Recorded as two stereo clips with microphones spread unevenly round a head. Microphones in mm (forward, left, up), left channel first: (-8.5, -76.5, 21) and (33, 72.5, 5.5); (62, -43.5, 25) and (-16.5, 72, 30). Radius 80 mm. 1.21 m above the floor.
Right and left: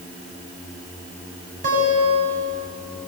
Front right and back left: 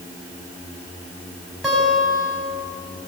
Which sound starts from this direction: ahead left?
A guitar, at 1.6 s.